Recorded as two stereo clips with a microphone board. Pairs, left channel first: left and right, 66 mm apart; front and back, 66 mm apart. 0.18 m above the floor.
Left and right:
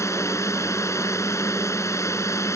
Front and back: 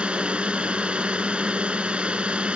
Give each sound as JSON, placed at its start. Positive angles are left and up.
{"t": 0.0, "sound": "a drone", "azimuth_deg": 110}